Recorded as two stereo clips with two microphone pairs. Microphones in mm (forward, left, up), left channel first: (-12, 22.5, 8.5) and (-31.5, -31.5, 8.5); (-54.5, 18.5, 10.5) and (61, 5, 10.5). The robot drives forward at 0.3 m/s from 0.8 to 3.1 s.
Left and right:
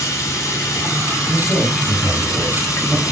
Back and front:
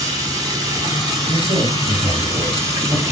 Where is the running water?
45° left, 4.5 m; by 3.1 s 55° left, 4 m.